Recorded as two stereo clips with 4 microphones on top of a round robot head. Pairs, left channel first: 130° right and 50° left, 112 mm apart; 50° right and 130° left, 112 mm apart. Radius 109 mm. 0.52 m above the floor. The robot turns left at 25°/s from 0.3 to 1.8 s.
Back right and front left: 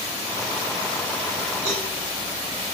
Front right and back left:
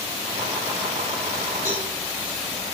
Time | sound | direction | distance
1.6 | a cowbell | 55° left | 6.5 m